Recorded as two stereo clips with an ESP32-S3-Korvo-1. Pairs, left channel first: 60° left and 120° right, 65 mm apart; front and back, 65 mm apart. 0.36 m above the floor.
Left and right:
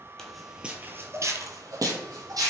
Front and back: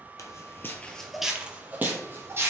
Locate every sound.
0.2 s footsteps: 20° right, 0.6 m; by 2.5 s 130° right, 1.1 m